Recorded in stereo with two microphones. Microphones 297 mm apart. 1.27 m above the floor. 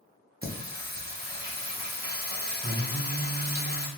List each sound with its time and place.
0.4 s singing: 35° right (ahead or behind), 0.5 m